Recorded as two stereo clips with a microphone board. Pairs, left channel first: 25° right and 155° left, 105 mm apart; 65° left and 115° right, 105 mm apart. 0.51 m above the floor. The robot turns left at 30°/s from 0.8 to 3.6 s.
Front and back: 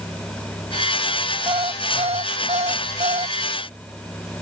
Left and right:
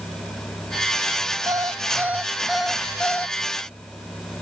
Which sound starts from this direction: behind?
An alarm clock, at 1.5 s.